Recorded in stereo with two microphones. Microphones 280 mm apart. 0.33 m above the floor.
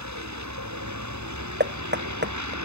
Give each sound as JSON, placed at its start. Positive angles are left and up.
{"t": 0.0, "sound": "a vehicle", "side_deg": -80}
{"t": 1.6, "sound": "knocking", "side_deg": -35}